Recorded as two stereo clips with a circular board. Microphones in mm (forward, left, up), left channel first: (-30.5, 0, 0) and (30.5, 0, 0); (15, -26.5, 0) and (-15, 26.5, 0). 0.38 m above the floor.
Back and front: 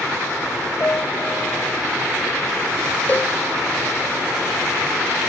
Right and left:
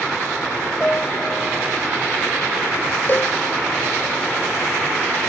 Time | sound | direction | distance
0.8 | a piano | 125° right | ?
3.1 | a cowbell | 115° right | ?